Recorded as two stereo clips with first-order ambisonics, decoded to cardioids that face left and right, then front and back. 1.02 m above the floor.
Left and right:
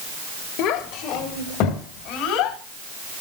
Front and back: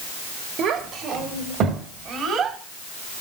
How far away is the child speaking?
About 2.5 m.